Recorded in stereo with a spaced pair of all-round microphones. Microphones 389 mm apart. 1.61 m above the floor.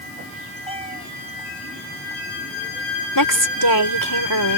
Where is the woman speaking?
60° left (ahead or behind).